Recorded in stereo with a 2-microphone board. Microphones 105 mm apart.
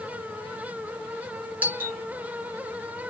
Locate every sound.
1.6 s a doorbell: 15° right (ahead or behind), 1.5 m